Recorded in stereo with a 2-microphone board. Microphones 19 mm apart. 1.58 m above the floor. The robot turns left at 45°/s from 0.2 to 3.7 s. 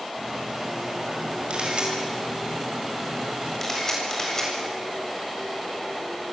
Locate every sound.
1.5 s a camera shutter: 75° right (ahead or behind), 7.5 m; by 6.3 s 20° left (ahead or behind), 7.5 m